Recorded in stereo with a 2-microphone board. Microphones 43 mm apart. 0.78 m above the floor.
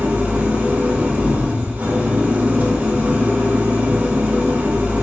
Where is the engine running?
40° right (ahead or behind), 1.2 m.